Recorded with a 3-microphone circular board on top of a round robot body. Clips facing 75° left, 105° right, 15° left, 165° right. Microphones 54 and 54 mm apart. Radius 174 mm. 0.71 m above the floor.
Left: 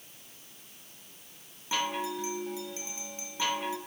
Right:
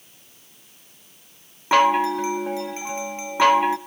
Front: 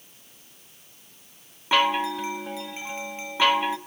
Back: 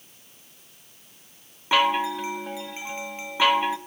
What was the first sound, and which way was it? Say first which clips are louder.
A chime: right 15 dB, back 1 dB; 75° right.